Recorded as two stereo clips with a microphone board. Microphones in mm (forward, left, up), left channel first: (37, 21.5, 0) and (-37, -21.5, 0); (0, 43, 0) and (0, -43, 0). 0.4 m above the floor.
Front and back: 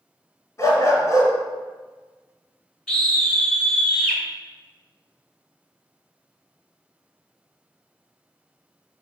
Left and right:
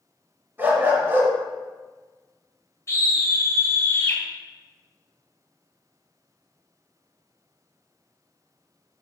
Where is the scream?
105° left, 1.6 m.